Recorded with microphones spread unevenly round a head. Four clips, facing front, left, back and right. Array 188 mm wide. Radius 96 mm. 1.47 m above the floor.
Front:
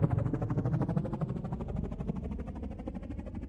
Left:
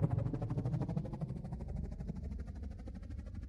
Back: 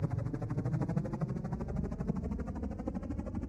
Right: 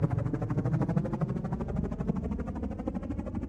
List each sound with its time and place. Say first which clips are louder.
0.0 s a helicopter: right 7 dB, front 6 dB; 55° right; by 3.5 s 100° right